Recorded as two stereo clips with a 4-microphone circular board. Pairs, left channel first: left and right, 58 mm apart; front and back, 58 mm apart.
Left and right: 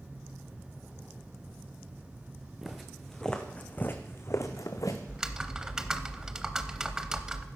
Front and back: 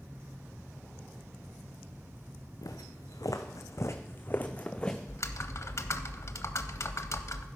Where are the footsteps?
5° right, 1.3 m; by 5.0 s 75° left, 1.2 m.